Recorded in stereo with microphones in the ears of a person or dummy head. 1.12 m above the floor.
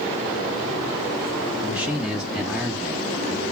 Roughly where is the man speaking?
Centre.